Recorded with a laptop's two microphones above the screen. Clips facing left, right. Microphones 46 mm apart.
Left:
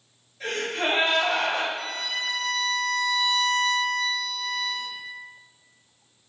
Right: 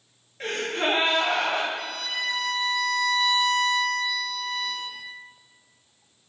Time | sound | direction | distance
0.4 | a gasp | 50° right (ahead or behind) | 1.1 m
1.8 | a violin | 55° right (ahead or behind) | 0.7 m